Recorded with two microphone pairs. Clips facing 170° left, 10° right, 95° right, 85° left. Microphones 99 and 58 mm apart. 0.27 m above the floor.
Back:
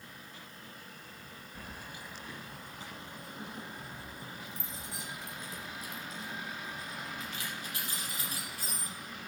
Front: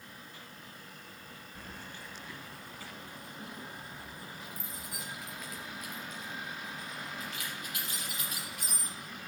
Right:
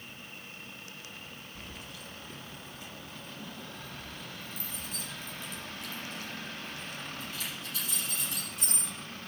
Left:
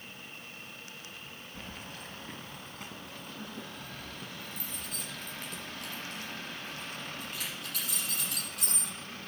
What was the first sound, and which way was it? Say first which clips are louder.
Keys jangling: back 1 dB, left 4 dB; 95° left.